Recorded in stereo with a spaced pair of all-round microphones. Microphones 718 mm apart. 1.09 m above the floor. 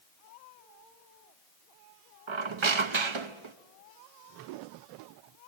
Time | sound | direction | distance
2.3 | a squeak | 40° right (ahead or behind) | 0.8 m